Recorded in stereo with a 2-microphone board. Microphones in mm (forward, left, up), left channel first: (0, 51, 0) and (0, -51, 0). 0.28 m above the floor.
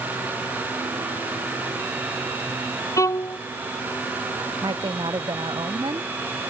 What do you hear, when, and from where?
3.0 s a violin: 30° left (ahead or behind)
4.6 s a woman speaking: 45° right (ahead or behind)